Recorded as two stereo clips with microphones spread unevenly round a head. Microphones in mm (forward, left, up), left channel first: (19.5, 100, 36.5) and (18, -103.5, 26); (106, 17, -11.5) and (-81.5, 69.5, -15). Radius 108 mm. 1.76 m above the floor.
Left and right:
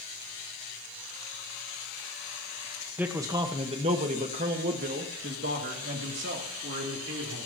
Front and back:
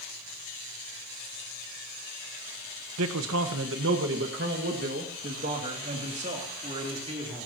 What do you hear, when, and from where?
3.0 s a man speaking: 175° right, 1.3 m; by 7.5 s 130° right, 4 m